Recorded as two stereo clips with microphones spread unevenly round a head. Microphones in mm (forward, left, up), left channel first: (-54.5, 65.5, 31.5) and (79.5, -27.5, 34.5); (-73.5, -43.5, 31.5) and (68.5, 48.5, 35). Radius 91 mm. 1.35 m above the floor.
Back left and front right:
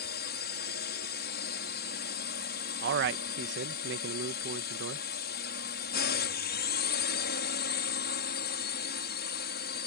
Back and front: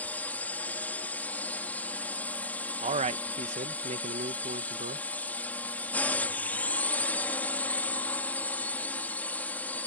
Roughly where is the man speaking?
Ahead.